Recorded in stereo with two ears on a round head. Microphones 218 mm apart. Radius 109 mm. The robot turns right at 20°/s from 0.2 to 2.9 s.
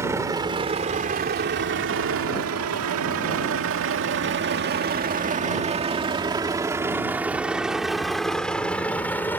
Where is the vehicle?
10° right (ahead or behind); by 9.4 s 10° left (ahead or behind).